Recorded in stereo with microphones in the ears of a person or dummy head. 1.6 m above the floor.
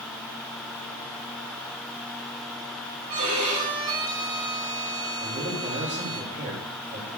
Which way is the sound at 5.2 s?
40° right (ahead or behind).